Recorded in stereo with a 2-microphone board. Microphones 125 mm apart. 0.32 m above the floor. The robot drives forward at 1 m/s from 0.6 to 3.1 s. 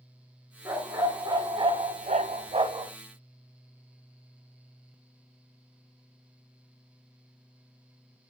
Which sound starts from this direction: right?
A dog barking, at 0.7 s.